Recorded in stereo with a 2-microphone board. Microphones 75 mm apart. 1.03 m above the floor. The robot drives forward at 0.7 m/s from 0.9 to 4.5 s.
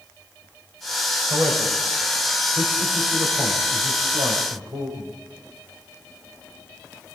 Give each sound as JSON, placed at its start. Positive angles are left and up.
{"t": 1.3, "sound": "a man speaking", "side_deg": -85, "distance_m": 6.0}